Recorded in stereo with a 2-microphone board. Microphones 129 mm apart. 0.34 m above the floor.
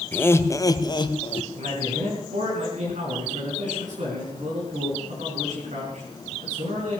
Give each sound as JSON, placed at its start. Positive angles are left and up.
{"t": 0.1, "sound": "laughter", "side_deg": 15, "distance_m": 1.1}
{"t": 1.6, "sound": "a man speaking", "side_deg": -70, "distance_m": 4.5}